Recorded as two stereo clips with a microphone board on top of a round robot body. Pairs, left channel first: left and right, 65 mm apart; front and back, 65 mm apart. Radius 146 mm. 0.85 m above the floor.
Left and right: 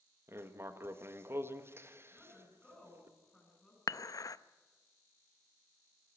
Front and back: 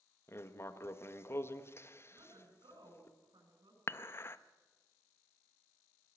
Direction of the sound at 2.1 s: 170° left.